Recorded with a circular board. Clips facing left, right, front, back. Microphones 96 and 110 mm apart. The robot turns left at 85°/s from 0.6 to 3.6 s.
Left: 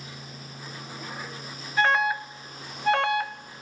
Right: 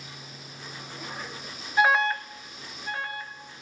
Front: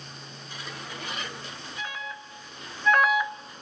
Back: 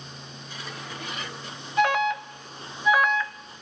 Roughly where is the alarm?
Behind.